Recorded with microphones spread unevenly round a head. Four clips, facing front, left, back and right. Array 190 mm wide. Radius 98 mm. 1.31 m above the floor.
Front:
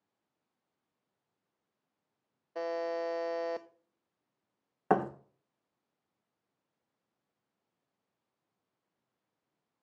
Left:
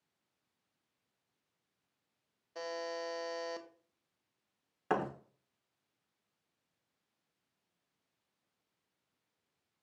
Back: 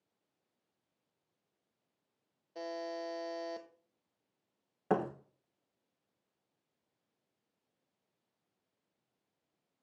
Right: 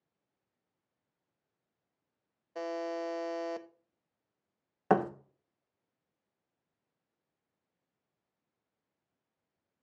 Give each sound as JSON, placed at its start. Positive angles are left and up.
{"t": 2.5, "sound": "a buzzer", "azimuth_deg": -10, "distance_m": 1.0}
{"t": 4.9, "sound": "a thud", "azimuth_deg": -120, "distance_m": 1.1}